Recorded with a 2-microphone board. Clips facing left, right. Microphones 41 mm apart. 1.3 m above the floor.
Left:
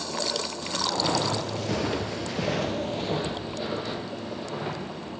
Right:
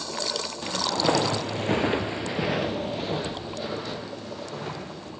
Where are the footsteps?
30° right (ahead or behind), 2.5 m; by 5.1 s 10° left (ahead or behind), 4 m.